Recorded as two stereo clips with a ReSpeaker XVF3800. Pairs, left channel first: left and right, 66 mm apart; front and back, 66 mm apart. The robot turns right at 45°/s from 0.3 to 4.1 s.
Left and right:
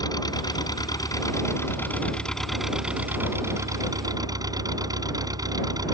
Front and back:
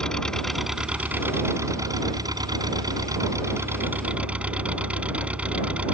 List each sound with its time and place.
0.0 s an engine running: 80° left; by 5.9 s 110° right